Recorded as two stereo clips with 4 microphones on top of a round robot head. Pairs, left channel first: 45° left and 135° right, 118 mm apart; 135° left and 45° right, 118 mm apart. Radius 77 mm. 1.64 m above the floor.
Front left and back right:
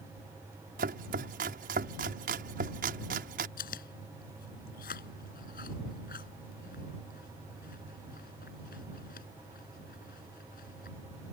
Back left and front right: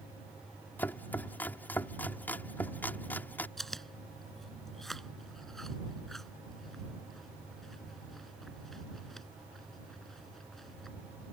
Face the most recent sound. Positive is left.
turn(degrees=45)